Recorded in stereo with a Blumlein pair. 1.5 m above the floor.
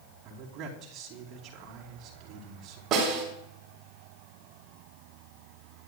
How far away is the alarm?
I don't hear an alarm.